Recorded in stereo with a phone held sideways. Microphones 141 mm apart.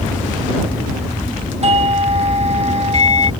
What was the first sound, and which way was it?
A doorbell, 50° right (ahead or behind).